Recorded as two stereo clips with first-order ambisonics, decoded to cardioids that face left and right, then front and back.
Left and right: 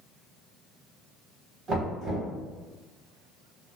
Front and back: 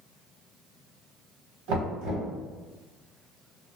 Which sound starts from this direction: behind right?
Knocking, at 1.7 s.